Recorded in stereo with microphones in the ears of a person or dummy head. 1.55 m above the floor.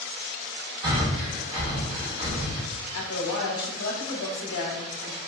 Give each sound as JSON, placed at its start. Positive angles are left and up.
{"t": 0.8, "sound": "breathing", "side_deg": -20, "distance_m": 1.0}
{"t": 2.9, "sound": "a woman speaking", "side_deg": 60, "distance_m": 0.8}